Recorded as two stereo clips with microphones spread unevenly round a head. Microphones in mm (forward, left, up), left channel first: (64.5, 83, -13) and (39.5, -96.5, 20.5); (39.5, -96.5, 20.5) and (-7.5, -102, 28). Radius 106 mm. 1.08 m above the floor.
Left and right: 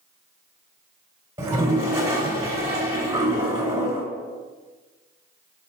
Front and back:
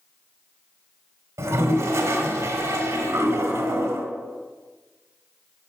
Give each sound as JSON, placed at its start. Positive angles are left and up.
{"t": 1.4, "sound": "a toilet flushing", "azimuth_deg": -175, "distance_m": 1.5}